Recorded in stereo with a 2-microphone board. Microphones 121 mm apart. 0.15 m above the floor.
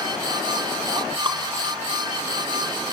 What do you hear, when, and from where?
1.2 s dripping: 40° right (ahead or behind), 1.9 m